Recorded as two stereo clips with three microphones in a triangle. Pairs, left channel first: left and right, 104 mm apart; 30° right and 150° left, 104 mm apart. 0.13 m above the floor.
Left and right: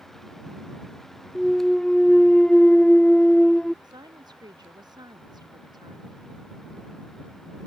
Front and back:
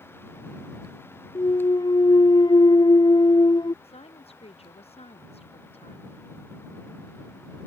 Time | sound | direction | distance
1.4 | a clunk | 5° left | ?
3.8 | a woman speaking | 40° right | ?